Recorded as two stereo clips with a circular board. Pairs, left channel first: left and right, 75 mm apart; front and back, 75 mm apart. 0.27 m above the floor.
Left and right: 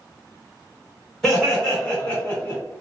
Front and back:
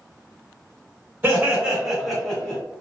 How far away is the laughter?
About 1.8 m.